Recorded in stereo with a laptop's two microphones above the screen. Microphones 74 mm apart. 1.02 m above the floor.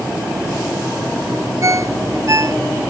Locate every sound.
1.6 s a ringtone: 45° right (ahead or behind)